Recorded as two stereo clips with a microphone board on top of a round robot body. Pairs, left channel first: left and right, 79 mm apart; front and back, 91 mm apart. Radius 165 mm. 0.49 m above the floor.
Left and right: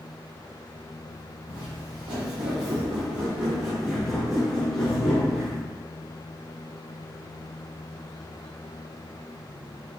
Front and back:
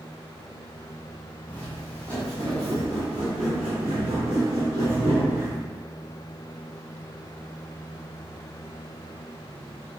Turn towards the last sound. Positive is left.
turn(degrees=115)